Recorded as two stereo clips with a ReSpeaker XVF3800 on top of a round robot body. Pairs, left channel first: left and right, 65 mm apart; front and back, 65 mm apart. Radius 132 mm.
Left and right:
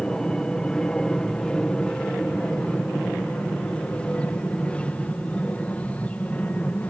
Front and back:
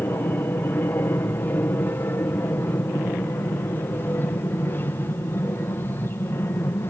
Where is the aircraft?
20° left; by 6.9 s 35° left.